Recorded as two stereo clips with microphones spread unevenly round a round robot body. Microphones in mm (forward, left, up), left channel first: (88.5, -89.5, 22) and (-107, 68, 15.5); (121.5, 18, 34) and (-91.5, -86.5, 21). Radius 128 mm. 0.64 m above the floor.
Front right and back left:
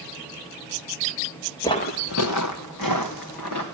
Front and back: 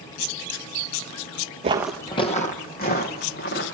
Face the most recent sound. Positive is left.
turn(degrees=-20)